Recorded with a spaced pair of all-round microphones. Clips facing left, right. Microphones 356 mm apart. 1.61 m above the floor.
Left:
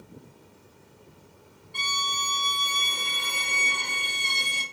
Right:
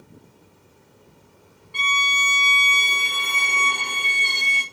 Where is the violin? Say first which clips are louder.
Right 5 dB; 70° right (ahead or behind), 1.1 m.